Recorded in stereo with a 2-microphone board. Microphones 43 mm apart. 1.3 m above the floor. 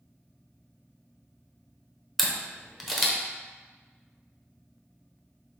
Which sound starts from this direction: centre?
A camera shutter, at 2.2 s.